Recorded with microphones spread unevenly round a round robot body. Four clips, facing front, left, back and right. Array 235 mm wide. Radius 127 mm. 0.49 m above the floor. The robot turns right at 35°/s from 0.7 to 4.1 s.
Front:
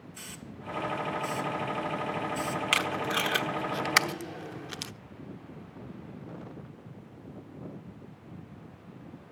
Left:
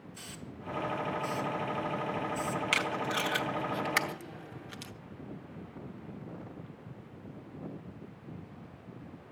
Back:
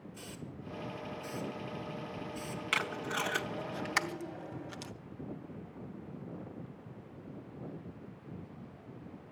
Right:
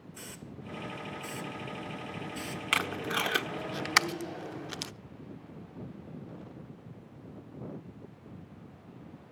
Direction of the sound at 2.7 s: 105° right.